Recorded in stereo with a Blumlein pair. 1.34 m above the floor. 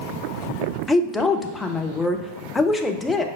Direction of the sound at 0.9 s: 10° left.